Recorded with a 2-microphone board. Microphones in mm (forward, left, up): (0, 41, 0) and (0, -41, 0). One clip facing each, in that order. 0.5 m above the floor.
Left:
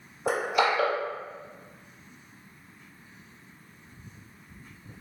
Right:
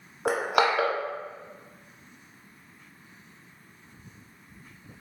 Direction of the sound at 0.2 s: 75° right (ahead or behind).